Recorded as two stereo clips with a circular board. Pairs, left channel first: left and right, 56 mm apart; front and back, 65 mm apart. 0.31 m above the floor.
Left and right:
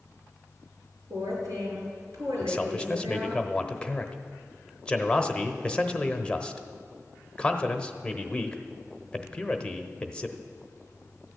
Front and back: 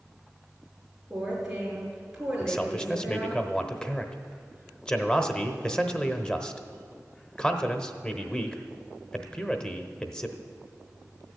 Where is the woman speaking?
95° right, 5 m.